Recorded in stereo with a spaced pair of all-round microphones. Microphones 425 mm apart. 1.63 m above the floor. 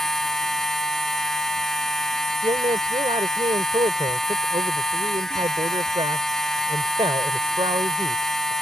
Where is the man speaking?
10° right (ahead or behind).